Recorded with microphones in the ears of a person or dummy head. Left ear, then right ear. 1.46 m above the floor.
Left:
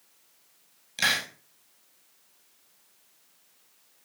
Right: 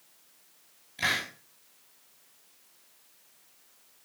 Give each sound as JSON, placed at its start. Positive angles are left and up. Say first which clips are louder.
{"t": 1.0, "sound": "a hiss", "louder": "left 3 dB", "side_deg": 75, "distance_m": 4.5}